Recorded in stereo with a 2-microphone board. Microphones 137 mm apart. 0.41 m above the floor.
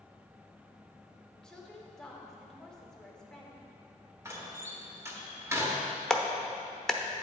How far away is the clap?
About 0.5 m.